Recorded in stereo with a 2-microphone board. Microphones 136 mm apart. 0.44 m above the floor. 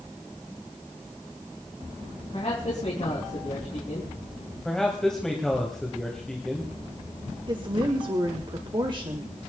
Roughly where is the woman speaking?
Right.